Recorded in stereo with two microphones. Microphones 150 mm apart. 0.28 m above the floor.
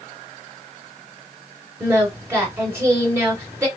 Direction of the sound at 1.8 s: 15° right (ahead or behind).